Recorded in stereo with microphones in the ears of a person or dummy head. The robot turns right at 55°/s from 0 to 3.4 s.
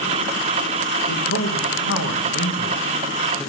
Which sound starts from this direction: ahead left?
A man speaking, at 1.1 s.